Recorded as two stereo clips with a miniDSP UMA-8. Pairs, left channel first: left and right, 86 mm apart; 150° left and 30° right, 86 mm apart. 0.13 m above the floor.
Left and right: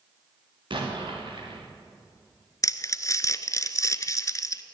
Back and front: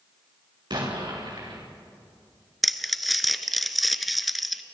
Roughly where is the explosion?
Ahead right.